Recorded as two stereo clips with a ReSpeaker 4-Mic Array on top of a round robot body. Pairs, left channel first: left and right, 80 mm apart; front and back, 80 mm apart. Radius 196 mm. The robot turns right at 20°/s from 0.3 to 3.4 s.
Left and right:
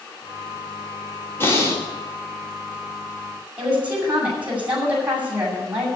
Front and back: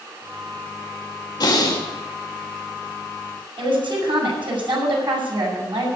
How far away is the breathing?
About 3.5 m.